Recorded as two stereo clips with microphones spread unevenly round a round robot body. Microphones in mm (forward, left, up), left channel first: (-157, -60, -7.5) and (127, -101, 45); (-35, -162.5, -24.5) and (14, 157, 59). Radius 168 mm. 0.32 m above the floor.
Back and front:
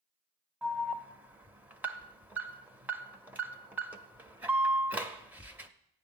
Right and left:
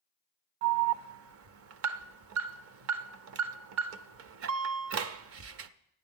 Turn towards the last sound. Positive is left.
turn(degrees=95)